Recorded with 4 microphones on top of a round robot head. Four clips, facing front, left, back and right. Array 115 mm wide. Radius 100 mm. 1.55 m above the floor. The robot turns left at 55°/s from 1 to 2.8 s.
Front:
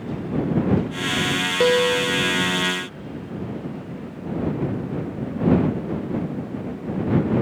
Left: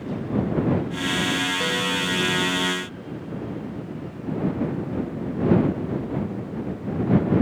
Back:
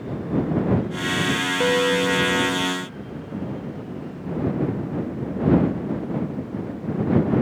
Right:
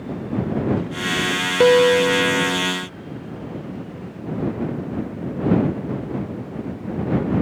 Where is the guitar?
75° right; by 2.6 s 125° right.